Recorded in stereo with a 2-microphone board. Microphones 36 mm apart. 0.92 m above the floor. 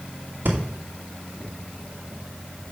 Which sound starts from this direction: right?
Breathing, at 0.5 s.